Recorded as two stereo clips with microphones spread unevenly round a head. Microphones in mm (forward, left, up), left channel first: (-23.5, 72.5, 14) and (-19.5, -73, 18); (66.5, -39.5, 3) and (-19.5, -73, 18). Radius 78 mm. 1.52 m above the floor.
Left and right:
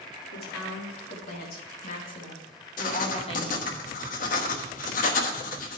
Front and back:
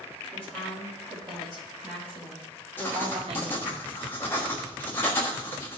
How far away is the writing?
About 1.2 m.